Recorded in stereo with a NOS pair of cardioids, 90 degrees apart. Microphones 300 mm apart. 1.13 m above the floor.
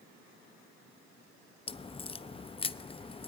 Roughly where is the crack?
Ahead.